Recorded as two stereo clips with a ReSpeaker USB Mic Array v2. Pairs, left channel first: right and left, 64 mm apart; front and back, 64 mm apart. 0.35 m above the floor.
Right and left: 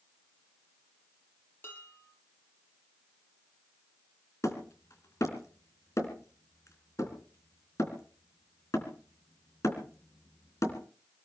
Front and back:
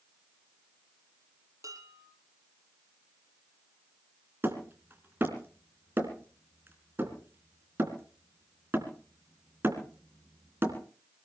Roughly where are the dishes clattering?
Behind right.